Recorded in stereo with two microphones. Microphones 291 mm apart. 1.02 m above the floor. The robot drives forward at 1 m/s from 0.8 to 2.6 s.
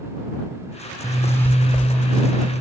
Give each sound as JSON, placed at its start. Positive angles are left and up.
{"t": 1.0, "sound": "a zipper", "side_deg": 10, "distance_m": 0.7}